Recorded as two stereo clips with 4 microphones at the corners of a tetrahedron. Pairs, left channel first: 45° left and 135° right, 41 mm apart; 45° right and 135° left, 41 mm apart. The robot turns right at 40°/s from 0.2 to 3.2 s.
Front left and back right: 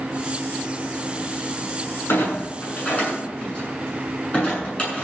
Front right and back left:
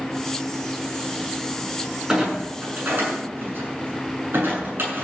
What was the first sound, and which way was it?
A clunk, 65° left.